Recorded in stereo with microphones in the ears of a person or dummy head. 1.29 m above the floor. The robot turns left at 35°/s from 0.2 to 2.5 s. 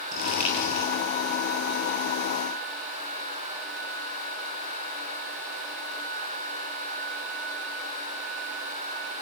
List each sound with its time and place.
0.1 s crumpling: 55° right (ahead or behind), 9 m; by 0.9 s 35° right (ahead or behind), 9 m